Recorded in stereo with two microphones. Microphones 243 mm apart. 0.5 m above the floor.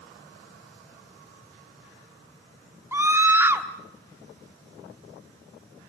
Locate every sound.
2.9 s a scream: 10° right (ahead or behind), 1.0 m